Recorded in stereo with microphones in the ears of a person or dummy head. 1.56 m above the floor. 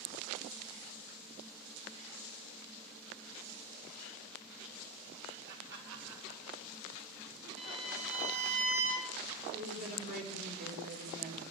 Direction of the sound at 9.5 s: 50° right (ahead or behind).